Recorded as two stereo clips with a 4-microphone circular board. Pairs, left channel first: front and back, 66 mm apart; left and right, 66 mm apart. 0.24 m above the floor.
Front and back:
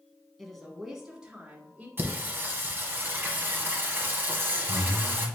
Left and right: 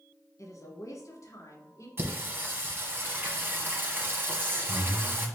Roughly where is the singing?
Behind right.